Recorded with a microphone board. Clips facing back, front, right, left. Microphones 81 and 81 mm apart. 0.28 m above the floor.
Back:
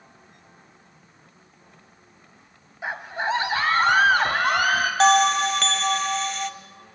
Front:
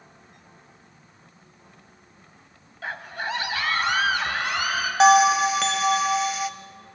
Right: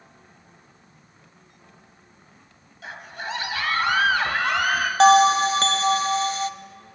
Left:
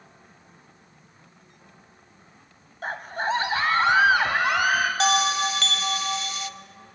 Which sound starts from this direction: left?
A scream, at 2.8 s.